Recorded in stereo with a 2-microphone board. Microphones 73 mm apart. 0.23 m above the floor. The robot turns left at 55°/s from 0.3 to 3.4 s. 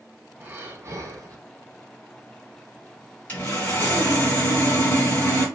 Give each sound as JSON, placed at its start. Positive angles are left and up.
{"t": 0.4, "sound": "breathing", "azimuth_deg": -35, "distance_m": 0.8}
{"t": 3.3, "sound": "sawing", "side_deg": 20, "distance_m": 2.5}